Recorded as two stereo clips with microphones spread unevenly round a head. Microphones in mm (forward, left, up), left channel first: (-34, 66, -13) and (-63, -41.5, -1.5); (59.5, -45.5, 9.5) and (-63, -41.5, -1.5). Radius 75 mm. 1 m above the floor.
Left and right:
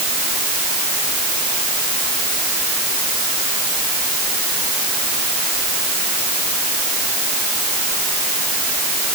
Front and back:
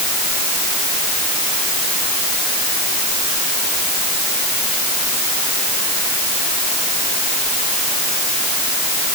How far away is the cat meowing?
No cat meowing in this recording.